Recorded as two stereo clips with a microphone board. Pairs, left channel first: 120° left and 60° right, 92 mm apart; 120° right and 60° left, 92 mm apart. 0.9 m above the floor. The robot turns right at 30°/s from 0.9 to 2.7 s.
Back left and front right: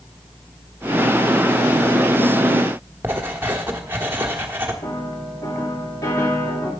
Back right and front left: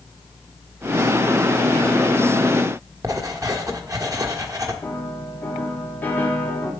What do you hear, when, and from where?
3.0 s writing: 10° left, 1.1 m
4.8 s a piano: 170° left, 2 m